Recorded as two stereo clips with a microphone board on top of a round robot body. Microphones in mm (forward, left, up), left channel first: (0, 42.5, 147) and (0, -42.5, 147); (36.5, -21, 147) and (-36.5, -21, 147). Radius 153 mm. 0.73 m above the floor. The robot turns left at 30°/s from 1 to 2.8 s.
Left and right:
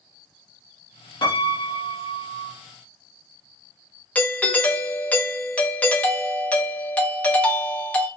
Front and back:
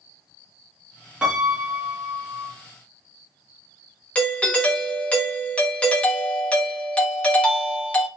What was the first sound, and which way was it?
A piano, 105° left.